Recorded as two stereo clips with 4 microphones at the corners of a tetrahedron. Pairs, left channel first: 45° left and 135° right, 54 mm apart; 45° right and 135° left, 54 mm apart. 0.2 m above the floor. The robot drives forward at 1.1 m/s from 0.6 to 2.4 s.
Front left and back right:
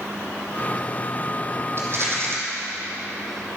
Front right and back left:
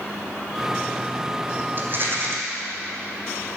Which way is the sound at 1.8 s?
175° right.